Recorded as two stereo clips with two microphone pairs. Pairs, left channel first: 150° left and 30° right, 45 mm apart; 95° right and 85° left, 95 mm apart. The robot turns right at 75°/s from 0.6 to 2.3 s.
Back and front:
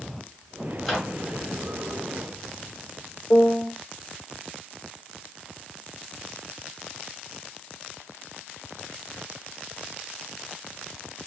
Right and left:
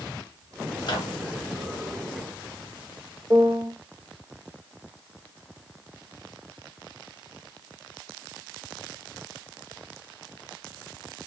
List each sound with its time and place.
0.8 s a microwave: 120° right, 1.2 m; by 1.2 s 95° right, 1.2 m
3.3 s a piano: 120° left, 0.9 m